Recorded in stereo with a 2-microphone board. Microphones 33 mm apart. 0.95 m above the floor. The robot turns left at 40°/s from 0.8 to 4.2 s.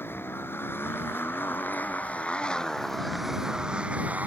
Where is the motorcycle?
90° left; by 4.3 s 45° right.